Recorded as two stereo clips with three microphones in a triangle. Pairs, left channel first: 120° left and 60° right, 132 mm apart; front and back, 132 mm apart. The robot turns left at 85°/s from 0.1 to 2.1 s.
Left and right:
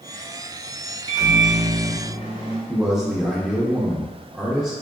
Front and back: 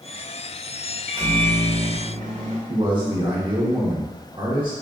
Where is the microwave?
105° right, 1.1 m; by 2.6 s 165° left, 1.1 m.